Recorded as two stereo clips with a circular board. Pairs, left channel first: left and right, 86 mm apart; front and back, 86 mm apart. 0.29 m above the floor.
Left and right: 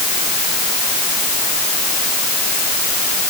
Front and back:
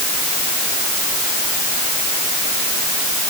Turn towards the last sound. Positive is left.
No sound to turn to.